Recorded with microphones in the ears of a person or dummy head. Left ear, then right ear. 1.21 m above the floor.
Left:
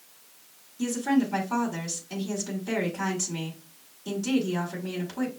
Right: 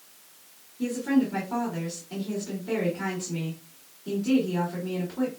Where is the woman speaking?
75° left (ahead or behind), 2 m.